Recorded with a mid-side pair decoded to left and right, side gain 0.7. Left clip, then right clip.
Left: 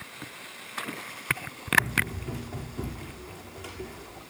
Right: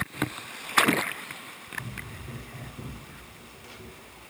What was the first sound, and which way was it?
Running footsteps, 30° left.